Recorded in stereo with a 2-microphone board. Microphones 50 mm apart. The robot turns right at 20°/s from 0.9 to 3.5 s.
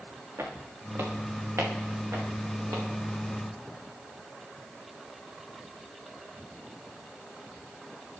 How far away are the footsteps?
About 2.5 m.